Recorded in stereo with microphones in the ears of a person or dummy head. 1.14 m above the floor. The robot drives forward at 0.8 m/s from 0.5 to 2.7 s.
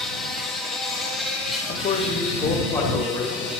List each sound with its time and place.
0.0 s an insect: 5° left (ahead or behind), 0.9 m; by 3.6 s centre (ahead or behind), 2.5 m
1.7 s a man speaking: 45° left (ahead or behind), 0.8 m; by 3.5 s 20° left (ahead or behind), 1.4 m